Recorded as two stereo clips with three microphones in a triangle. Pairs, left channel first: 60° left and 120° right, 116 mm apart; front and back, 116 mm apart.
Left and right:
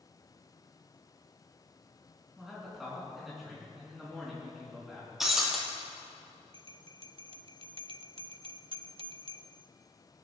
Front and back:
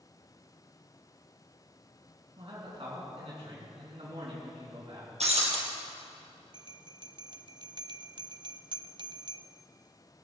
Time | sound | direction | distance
2.4 | a man speaking | 150° left | 4 m
5.2 | breaking glass | 155° left | 3 m
6.5 | a bell | 140° right | 0.5 m